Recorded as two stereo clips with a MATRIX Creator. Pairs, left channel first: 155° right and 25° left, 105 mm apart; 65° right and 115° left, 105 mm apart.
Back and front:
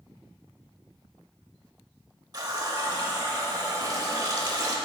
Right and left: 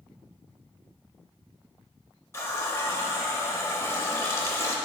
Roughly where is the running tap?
Ahead.